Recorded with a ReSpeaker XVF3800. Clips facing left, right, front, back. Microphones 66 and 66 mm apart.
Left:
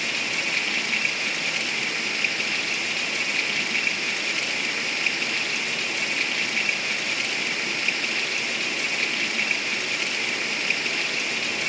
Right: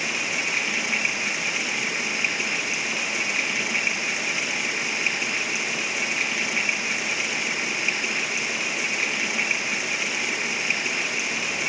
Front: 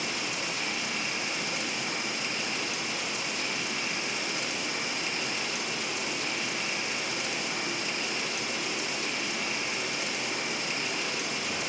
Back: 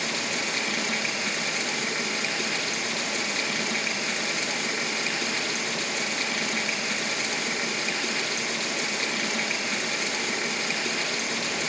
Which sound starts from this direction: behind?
Running water, at 0.0 s.